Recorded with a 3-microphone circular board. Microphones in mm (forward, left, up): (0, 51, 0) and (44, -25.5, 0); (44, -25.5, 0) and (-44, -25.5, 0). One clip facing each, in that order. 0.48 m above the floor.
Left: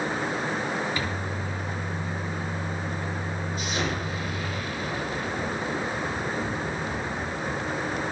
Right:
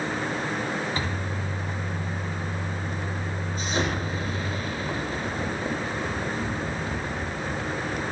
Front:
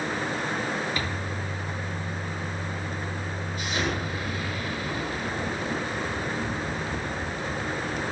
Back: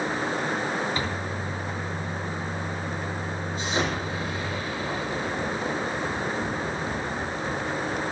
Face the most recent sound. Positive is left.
turn(degrees=-115)